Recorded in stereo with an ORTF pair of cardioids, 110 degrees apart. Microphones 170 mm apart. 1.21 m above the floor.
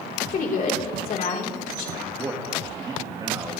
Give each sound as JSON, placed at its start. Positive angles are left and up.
{"t": 0.3, "sound": "a woman speaking", "azimuth_deg": 55, "distance_m": 3.5}
{"t": 2.0, "sound": "a man speaking", "azimuth_deg": -25, "distance_m": 1.9}